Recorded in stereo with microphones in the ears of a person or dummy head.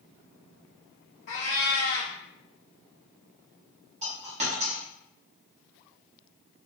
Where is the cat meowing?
35° left (ahead or behind), 0.7 m.